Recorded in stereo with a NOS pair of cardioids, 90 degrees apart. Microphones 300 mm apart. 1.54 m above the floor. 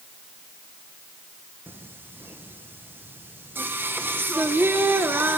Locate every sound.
1.7 s singing: 5° right, 1.0 m